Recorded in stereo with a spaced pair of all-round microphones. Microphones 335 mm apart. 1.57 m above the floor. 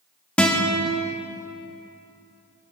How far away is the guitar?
About 1.4 m.